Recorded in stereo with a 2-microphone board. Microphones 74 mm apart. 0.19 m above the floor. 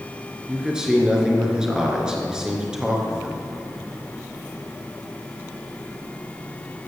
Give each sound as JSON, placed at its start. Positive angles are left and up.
{"t": 0.5, "sound": "a man speaking", "side_deg": -10, "distance_m": 2.5}